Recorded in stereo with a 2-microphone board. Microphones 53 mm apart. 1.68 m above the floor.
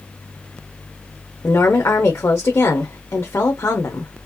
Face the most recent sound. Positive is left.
turn(degrees=65)  # may be behind; listen again after turning